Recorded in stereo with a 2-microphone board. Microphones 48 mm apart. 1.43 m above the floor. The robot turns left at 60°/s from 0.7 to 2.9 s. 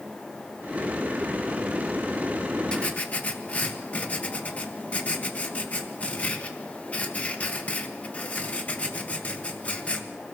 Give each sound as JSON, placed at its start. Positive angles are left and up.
{"t": 2.7, "sound": "writing", "side_deg": 20, "distance_m": 1.6}